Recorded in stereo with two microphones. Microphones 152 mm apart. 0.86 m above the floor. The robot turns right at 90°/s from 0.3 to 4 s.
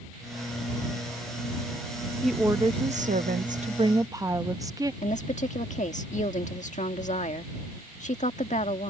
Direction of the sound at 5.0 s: 55° left (ahead or behind).